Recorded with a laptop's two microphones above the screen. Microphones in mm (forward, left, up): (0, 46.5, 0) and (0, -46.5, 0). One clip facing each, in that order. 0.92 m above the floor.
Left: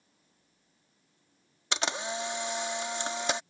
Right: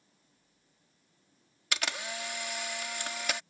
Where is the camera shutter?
25° left (ahead or behind).